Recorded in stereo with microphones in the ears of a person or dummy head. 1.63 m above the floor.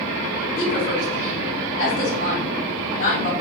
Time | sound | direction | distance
0.6 | a woman speaking | 65° left (ahead or behind) | 1.9 m